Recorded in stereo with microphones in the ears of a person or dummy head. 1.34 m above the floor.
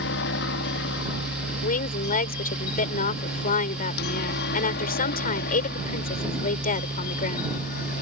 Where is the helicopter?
60° left (ahead or behind); by 8.0 s 50° left (ahead or behind).